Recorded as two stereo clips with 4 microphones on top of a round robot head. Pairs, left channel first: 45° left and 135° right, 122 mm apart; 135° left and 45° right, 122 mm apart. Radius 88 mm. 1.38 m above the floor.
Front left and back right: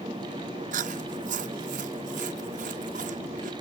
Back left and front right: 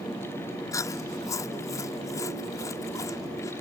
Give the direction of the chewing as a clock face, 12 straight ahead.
5 o'clock.